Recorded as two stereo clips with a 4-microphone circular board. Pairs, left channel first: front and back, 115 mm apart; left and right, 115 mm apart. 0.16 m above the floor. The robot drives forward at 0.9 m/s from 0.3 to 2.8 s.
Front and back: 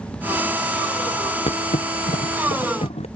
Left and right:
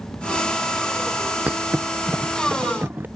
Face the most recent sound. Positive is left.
turn(degrees=-15)